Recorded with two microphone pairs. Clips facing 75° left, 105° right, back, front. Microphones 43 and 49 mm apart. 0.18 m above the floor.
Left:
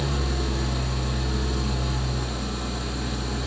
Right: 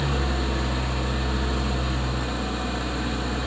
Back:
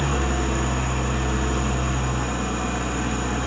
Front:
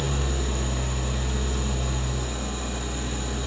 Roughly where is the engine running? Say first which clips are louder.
Right 2 dB, back 5 dB; behind.